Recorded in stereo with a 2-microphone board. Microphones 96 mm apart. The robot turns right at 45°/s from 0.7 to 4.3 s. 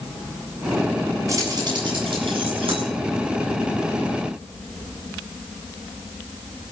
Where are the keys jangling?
35° right (ahead or behind), 9 m; by 2.9 s 75° right (ahead or behind), 9 m.